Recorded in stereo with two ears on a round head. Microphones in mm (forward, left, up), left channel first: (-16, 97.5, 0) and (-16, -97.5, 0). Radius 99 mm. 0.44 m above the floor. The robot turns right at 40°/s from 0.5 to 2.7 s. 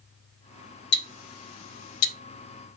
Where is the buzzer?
No buzzer in this recording.